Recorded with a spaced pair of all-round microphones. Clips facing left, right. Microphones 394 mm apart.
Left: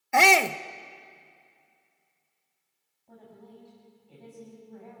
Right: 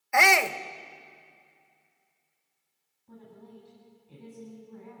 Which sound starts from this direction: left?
A shout, at 0.1 s.